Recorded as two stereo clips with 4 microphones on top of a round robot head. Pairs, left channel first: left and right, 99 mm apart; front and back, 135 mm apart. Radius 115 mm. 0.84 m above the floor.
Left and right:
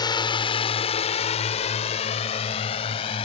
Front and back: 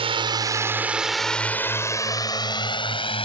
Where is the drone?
135° left; by 3.3 s 50° left.